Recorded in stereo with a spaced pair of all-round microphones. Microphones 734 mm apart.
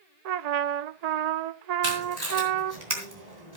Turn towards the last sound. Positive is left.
turn(degrees=-65)  # may be behind; listen again after turning